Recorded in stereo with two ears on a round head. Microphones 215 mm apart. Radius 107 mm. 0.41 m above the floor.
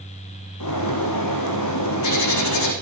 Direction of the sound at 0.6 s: 85° left.